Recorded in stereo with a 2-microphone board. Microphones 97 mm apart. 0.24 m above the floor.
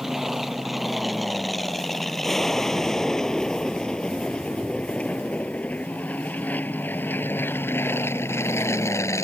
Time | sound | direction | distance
0.0 | an aircraft | centre (ahead or behind) | ?